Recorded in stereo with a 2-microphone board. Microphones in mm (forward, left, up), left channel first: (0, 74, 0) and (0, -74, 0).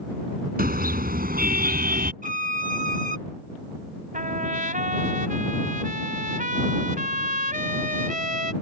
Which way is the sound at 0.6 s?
80° right.